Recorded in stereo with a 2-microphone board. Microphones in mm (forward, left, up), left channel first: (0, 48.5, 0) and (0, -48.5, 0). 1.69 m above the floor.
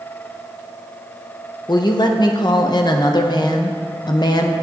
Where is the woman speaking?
45° left (ahead or behind), 0.7 m.